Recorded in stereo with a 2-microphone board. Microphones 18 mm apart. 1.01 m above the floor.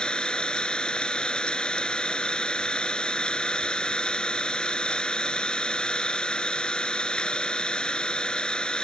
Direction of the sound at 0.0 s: 55° left (ahead or behind).